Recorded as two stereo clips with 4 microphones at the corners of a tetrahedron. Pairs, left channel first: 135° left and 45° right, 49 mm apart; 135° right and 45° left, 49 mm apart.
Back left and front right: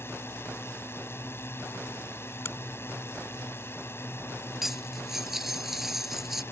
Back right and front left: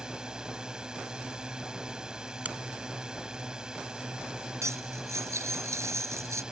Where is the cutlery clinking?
40° left.